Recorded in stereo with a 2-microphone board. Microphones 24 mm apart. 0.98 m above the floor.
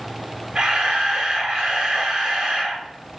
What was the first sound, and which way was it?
A camera shutter, 45° right (ahead or behind).